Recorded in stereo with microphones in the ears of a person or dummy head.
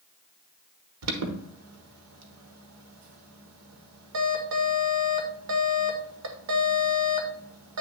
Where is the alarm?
85° right, 1.4 m.